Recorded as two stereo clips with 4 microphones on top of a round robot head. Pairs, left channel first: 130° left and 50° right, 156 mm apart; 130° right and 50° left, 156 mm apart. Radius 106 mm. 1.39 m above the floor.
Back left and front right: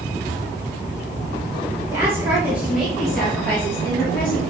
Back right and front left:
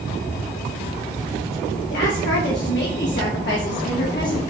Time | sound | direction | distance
1.9 | a woman speaking | 125° right | 2 m